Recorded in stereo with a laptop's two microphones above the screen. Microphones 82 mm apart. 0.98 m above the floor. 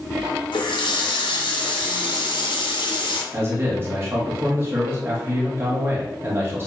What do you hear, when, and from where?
0.5 s a running tap: 85° left, 0.6 m
3.3 s a man speaking: 30° right (ahead or behind), 1.0 m